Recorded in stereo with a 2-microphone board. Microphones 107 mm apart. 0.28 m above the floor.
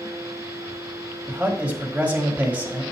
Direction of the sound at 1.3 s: 15° right (ahead or behind).